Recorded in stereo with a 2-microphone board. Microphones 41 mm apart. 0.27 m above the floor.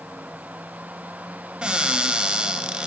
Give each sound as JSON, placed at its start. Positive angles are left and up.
{"t": 1.6, "sound": "a cupboard door", "side_deg": -25, "distance_m": 0.7}